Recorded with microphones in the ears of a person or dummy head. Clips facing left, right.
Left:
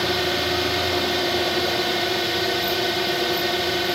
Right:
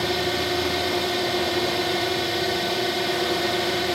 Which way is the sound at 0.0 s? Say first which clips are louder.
Left 1 dB; centre (ahead or behind).